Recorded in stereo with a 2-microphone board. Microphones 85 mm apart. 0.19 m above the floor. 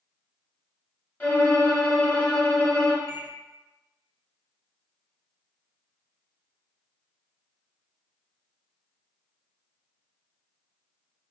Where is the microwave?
25° right (ahead or behind), 0.9 m.